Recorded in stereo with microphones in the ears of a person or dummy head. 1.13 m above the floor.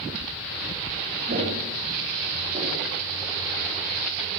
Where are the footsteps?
45° right (ahead or behind), 4 m; by 2.9 s 25° right (ahead or behind), 5.5 m.